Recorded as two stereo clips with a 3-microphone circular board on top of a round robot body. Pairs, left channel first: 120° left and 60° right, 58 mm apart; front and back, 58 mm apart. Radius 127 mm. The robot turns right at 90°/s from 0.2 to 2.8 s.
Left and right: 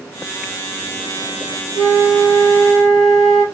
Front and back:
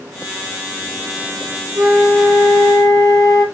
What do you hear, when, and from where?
1.8 s a flute: 110° left, 2.5 m; by 3.4 s 155° right, 2.5 m